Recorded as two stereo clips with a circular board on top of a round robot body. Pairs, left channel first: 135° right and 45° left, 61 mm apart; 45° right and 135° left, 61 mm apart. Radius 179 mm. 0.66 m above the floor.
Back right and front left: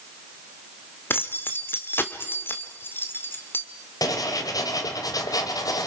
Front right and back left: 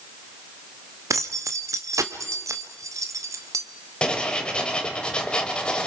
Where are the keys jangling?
170° left, 1.8 m.